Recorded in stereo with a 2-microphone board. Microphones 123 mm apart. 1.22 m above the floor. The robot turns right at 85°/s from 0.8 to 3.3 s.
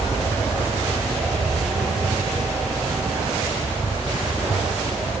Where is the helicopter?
25° left (ahead or behind); by 5.2 s 30° left (ahead or behind).